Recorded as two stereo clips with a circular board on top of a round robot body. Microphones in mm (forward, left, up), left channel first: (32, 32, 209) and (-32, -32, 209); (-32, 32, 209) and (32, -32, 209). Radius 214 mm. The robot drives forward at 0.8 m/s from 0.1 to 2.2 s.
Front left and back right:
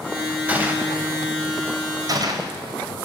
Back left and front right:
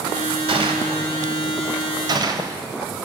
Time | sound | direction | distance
0.5 | a gunshot | 60° right | 3 m